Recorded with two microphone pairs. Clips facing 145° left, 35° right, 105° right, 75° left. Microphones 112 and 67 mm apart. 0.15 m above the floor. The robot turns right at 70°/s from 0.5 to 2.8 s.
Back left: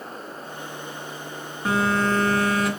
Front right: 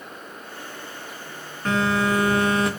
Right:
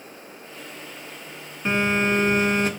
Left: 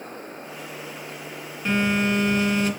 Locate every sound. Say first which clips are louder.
1.6 s a phone buzzing: even, right 1 dB; 140° right, 2.0 m; by 2.7 s 70° right, 2.0 m